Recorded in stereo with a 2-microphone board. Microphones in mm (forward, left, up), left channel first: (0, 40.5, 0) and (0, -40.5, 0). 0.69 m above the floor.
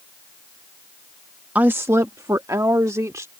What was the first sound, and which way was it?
A woman speaking, 20° right (ahead or behind).